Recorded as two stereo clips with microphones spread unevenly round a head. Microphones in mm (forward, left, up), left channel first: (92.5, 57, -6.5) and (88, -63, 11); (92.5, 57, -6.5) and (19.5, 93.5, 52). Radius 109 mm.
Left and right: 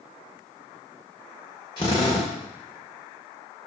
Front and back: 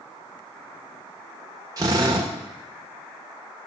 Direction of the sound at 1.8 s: 160° left.